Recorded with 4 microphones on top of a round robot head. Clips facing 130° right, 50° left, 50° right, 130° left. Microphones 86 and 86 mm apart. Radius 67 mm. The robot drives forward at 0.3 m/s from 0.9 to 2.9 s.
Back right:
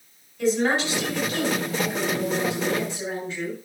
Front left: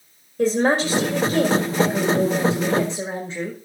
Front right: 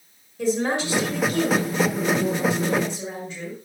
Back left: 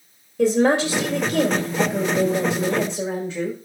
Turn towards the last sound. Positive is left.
turn(degrees=115)